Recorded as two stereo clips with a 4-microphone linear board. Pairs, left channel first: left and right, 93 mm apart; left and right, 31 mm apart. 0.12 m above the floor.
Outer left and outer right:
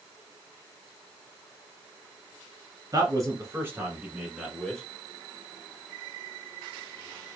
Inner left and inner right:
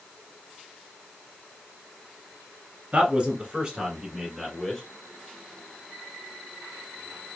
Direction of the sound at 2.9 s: 40° right (ahead or behind).